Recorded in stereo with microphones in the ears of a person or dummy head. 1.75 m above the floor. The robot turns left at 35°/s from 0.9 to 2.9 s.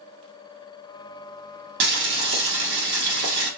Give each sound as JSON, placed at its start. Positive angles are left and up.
{"t": 1.8, "sound": "boiling", "azimuth_deg": -65, "distance_m": 1.1}